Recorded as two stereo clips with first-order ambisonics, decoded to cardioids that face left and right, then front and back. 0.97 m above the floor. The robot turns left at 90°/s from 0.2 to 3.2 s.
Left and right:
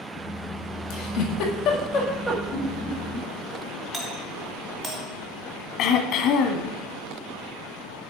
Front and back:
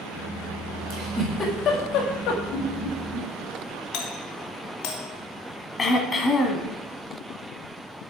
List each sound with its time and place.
0.9 s a giggle: 125° left, 2 m; by 2.4 s 15° right, 2 m
2.5 s laughter: 35° left, 2.5 m; by 3.3 s 25° right, 2.5 m
3.9 s a doorbell: 5° right, 1.5 m
5.8 s throat clearing: 65° left, 1.2 m